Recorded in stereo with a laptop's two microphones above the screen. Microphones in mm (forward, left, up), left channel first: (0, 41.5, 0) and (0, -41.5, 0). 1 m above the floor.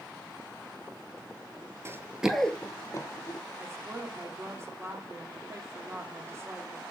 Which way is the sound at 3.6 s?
35° right (ahead or behind).